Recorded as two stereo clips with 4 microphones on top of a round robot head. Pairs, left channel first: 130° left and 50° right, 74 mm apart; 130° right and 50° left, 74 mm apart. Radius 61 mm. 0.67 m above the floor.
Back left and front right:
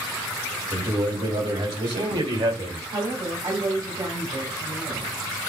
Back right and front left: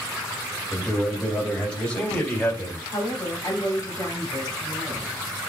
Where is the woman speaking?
80° right, 2.5 m.